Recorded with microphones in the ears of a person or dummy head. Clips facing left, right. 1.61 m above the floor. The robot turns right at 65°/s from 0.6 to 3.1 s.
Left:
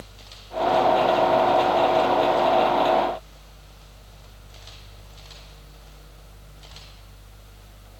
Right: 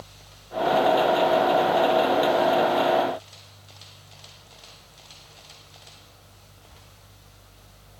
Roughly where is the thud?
I don't hear a thud.